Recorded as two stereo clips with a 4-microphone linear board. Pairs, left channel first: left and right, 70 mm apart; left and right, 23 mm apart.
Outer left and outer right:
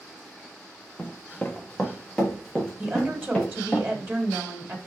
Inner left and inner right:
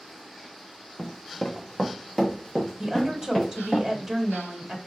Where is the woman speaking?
30° right (ahead or behind), 1.5 m.